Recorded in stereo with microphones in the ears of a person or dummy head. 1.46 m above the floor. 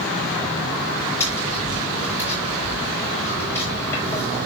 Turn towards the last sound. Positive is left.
turn(degrees=20)  # may be behind; listen again after turning